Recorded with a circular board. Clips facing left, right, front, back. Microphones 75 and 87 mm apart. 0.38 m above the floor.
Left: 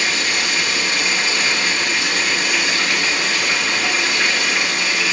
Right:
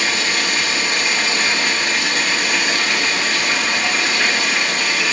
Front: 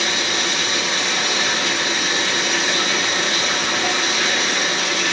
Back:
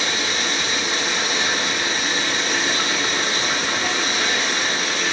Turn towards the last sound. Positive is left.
turn(degrees=15)